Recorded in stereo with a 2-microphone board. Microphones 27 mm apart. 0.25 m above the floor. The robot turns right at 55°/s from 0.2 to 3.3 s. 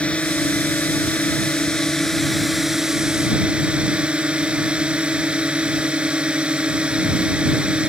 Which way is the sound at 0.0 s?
55° left.